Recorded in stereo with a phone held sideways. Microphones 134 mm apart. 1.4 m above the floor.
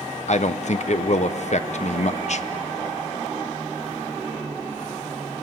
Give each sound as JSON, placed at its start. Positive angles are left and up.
{"t": 0.3, "sound": "a man speaking", "side_deg": 60, "distance_m": 0.8}